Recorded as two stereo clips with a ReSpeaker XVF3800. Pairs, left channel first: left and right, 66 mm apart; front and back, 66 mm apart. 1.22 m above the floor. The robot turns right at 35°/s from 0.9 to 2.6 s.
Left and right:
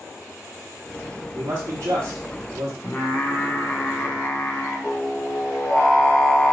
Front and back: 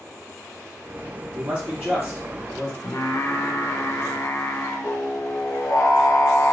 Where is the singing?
25° left, 0.7 m.